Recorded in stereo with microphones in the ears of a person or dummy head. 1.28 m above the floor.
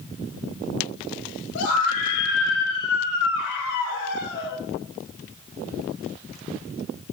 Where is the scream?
85° left, 3.5 m; by 4.6 s 70° left (ahead or behind), 5.5 m.